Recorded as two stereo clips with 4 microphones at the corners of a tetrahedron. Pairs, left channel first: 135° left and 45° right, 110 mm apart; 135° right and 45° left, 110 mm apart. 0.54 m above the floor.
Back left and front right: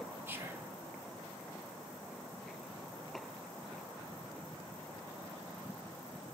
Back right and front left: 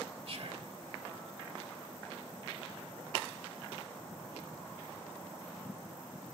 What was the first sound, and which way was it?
Whispering, 25° left.